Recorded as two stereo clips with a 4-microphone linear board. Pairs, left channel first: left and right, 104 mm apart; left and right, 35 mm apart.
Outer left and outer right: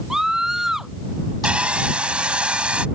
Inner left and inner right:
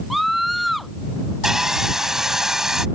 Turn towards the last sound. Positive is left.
turn(degrees=-10)  # may be behind; listen again after turning